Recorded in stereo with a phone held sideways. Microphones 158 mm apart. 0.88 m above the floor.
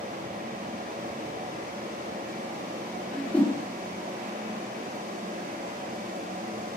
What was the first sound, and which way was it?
A fan, 65° right (ahead or behind).